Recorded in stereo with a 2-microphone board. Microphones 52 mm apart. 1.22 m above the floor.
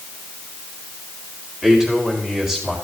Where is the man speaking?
10° right (ahead or behind), 4 m.